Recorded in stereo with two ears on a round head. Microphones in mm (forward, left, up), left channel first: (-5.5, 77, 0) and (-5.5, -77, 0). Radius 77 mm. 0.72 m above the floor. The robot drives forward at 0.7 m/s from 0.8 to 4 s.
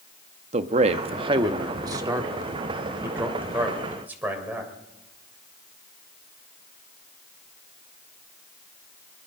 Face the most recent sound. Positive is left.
turn(degrees=-10)  # may be behind; listen again after turning